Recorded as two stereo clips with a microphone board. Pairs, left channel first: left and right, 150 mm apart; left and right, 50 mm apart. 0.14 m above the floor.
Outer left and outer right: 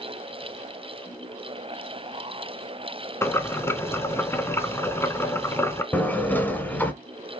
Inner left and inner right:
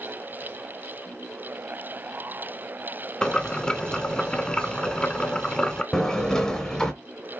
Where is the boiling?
15° left (ahead or behind), 0.6 m.